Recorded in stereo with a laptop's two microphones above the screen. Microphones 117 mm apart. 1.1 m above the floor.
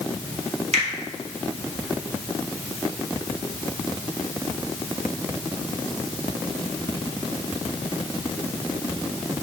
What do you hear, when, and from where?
0.7 s a finger snap: 65° right (ahead or behind), 2 m